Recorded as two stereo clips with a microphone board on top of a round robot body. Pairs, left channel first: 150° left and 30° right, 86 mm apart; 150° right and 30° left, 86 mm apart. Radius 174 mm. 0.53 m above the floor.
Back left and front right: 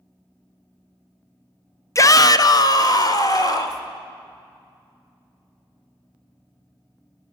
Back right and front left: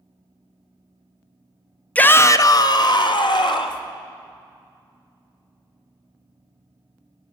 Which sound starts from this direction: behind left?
A shout, at 1.9 s.